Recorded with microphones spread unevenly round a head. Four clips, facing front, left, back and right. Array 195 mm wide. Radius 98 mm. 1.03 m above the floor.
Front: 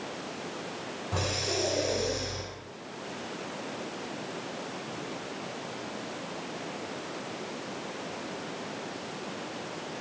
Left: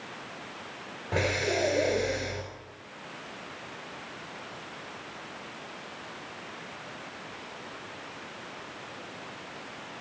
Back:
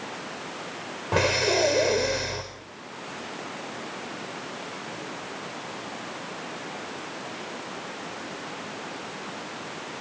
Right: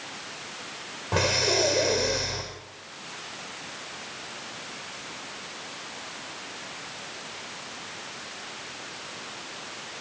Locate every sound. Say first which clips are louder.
1.1 s breathing: right 3 dB, back 9 dB; 170° right, 4.5 m